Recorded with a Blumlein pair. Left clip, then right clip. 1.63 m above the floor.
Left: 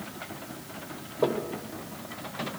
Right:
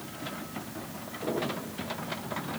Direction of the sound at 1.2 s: 35° left.